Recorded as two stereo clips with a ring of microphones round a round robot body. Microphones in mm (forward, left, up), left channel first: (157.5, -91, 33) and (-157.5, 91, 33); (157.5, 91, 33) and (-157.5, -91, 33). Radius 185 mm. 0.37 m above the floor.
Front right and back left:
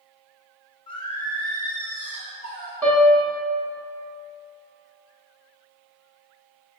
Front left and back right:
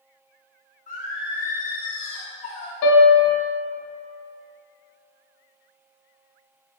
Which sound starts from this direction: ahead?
Singing, at 0.9 s.